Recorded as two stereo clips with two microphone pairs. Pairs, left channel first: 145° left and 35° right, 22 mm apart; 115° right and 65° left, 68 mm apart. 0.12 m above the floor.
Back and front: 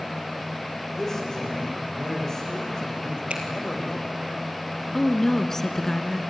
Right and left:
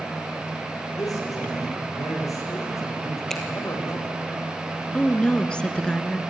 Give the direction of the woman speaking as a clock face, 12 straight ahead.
6 o'clock.